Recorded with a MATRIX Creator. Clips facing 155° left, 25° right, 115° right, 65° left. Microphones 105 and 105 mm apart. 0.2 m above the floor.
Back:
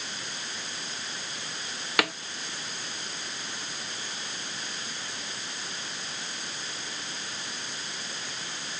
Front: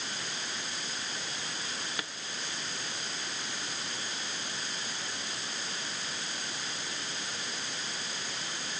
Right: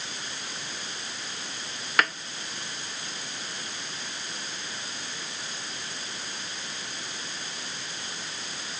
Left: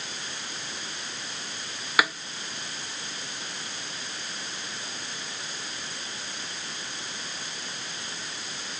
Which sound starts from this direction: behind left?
A snare drum, at 2.0 s.